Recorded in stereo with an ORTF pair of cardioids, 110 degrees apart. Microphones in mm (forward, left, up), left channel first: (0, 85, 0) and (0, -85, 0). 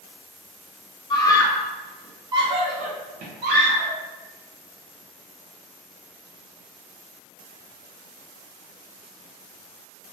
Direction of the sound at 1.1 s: 25° left.